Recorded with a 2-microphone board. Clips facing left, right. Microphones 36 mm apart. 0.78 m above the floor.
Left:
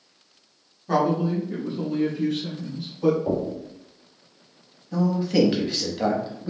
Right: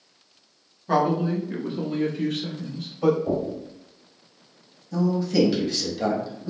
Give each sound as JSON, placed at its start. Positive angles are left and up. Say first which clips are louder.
{"t": 0.9, "sound": "a man speaking", "louder": "even", "side_deg": -10, "distance_m": 1.0}
{"t": 3.3, "sound": "knocking", "louder": "even", "side_deg": 65, "distance_m": 1.8}
{"t": 4.9, "sound": "a man speaking", "louder": "left 1 dB", "side_deg": 30, "distance_m": 0.9}